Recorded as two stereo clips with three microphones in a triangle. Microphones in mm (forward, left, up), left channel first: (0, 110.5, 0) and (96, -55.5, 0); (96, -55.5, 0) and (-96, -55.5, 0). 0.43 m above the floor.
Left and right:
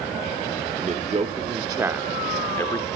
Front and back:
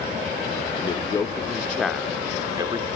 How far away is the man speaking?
About 1.3 m.